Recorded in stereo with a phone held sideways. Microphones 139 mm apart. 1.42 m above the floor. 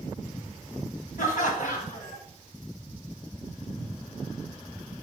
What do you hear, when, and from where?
1.2 s laughter: 70° left (ahead or behind), 1.2 m